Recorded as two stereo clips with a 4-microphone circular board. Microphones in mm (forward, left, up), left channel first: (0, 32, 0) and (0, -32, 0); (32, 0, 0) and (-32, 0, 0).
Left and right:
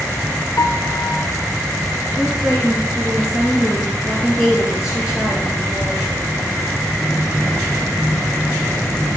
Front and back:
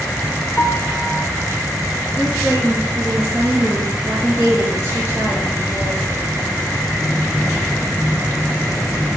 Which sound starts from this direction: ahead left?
A piano, at 0.6 s.